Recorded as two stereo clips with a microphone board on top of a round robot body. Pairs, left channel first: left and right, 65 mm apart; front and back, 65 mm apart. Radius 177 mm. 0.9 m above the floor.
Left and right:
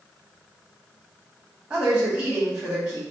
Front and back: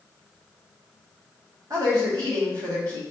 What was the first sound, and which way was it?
A woman speaking, 165° right.